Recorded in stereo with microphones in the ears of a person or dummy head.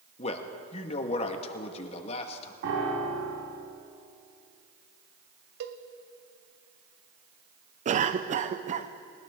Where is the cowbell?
55° right (ahead or behind), 0.7 m.